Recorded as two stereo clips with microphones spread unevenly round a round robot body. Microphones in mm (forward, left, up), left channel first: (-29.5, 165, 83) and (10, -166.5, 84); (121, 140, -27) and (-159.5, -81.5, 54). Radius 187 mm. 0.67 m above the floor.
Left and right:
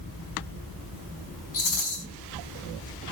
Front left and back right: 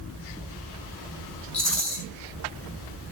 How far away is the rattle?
About 5.5 m.